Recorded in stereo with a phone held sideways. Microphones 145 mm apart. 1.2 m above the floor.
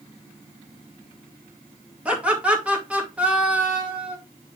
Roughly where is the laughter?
Centre.